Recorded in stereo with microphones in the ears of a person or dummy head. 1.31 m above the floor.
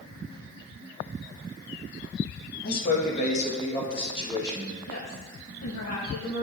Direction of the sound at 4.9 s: 75° left (ahead or behind).